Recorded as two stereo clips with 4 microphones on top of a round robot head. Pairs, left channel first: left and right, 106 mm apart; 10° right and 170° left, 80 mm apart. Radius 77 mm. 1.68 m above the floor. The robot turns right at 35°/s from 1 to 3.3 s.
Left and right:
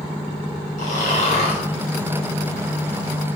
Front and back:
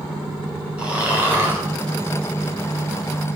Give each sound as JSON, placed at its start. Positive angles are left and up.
{"t": 0.8, "sound": "snoring", "azimuth_deg": 95, "distance_m": 5.0}